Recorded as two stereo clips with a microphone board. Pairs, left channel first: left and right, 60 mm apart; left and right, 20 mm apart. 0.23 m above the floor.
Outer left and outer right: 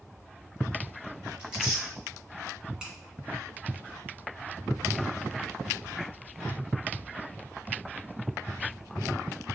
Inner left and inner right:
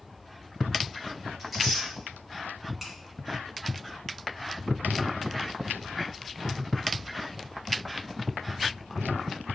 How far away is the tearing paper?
About 3.5 m.